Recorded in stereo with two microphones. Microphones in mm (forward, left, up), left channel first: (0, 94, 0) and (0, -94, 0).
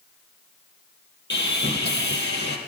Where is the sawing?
75° left (ahead or behind), 3.5 m.